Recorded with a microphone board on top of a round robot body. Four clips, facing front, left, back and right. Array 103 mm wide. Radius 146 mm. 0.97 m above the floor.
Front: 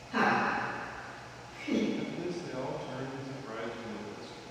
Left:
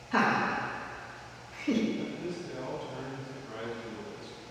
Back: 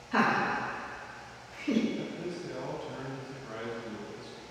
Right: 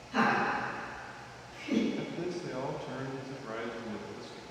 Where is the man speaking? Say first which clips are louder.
Even, front 1 dB; 75° right, 1.2 m.